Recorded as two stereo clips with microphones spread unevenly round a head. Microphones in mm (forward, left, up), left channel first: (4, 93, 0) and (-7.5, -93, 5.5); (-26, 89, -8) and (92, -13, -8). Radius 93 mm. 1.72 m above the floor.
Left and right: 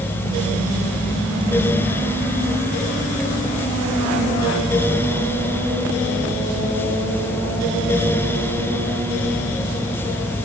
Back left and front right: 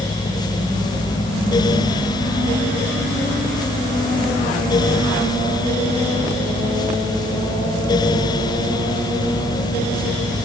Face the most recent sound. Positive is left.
No sound to turn to.